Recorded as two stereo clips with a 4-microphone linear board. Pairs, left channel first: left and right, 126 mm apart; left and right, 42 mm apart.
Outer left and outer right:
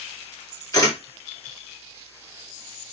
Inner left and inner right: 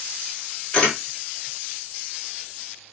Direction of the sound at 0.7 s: 30° left (ahead or behind).